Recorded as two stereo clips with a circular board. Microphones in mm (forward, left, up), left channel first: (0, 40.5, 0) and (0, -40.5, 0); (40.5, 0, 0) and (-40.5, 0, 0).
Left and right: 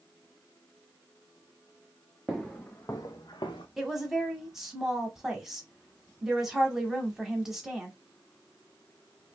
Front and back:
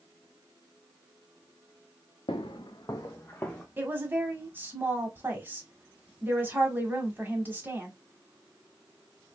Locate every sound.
2.3 s footsteps: straight ahead, 0.7 m; by 3.7 s 70° left, 1.0 m
3.8 s a woman speaking: 170° right, 1.1 m